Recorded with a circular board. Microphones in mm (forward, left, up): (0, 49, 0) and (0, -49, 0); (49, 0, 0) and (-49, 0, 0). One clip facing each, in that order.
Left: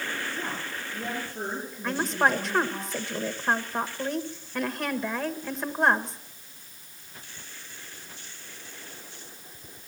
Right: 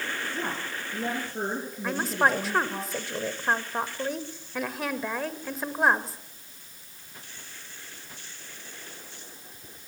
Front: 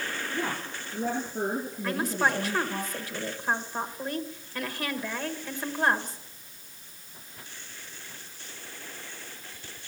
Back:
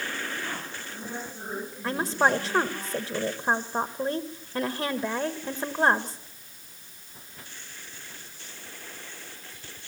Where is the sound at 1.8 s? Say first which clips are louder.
Even, back 3 dB; 175° right, 1.4 m.